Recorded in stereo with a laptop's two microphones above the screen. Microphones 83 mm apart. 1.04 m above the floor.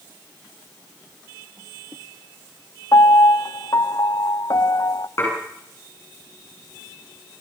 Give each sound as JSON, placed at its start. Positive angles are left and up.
{"t": 2.9, "sound": "a piano", "side_deg": 45, "distance_m": 0.7}
{"t": 5.2, "sound": "dishes clattering", "side_deg": 35, "distance_m": 8.5}